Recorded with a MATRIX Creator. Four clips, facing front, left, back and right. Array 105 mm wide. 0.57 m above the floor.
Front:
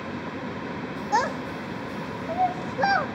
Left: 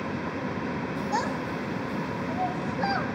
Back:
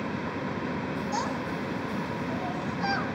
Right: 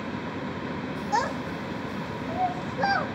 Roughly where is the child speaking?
Ahead.